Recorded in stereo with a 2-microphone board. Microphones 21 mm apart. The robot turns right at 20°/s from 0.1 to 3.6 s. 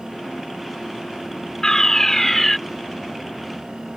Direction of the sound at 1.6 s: 25° left (ahead or behind).